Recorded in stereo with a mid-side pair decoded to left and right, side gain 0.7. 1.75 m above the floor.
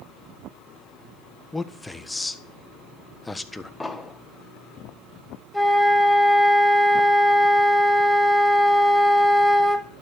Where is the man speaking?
10° left, 1.3 m.